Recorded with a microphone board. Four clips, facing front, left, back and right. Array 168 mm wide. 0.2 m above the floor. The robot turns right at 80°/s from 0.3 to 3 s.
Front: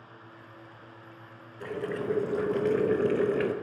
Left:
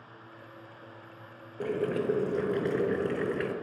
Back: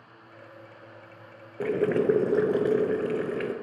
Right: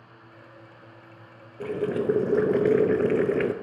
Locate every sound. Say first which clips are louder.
1.6 s boiling: right 3 dB, back 9 dB; 165° left, 0.7 m; by 3.5 s 80° right, 0.7 m